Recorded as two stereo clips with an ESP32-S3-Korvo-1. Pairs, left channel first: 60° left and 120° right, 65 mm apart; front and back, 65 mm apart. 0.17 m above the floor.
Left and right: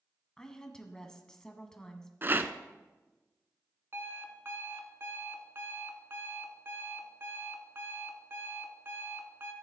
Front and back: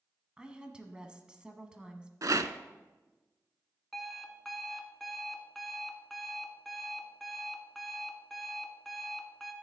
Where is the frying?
I don't hear frying.